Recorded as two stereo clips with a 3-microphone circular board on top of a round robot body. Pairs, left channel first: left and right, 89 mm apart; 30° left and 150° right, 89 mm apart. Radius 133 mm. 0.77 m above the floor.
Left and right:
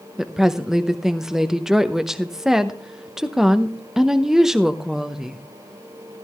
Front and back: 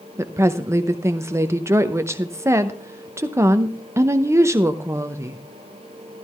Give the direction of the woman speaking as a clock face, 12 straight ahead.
6 o'clock.